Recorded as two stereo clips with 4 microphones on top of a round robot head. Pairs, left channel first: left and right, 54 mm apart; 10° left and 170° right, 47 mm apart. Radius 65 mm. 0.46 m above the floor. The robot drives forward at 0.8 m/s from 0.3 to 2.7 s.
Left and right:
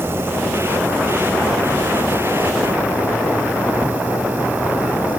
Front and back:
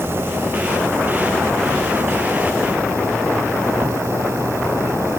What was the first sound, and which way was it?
An insect, 135° right.